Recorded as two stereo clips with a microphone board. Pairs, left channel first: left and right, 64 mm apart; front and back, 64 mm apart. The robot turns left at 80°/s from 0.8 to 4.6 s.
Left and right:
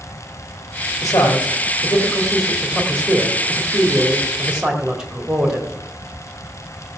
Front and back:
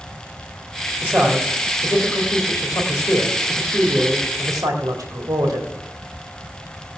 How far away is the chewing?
No chewing in this recording.